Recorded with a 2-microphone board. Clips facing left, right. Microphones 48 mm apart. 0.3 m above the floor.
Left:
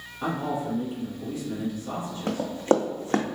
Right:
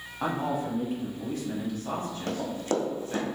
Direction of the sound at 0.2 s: 55° right (ahead or behind).